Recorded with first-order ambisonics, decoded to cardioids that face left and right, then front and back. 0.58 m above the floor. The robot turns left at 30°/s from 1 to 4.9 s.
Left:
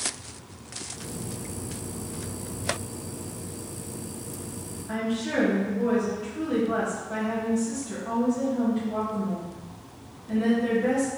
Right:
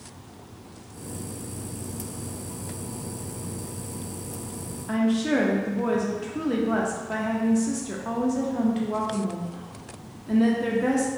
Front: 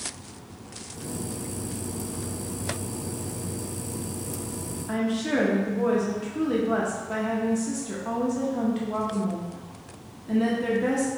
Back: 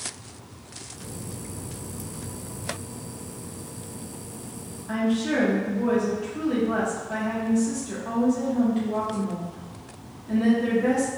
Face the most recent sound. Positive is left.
turn(degrees=-70)